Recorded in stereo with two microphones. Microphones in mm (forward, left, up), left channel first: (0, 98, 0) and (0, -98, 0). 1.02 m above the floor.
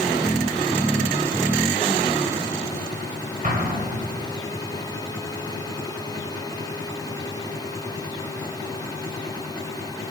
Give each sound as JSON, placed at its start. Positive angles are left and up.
{"t": 3.4, "sound": "an explosion", "side_deg": -45, "distance_m": 2.5}